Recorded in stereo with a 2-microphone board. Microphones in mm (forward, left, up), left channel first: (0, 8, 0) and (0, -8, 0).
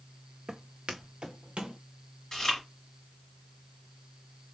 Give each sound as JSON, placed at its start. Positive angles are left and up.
{"t": 0.5, "sound": "footsteps", "side_deg": -55, "distance_m": 0.6}
{"t": 2.3, "sound": "chewing", "side_deg": 30, "distance_m": 2.5}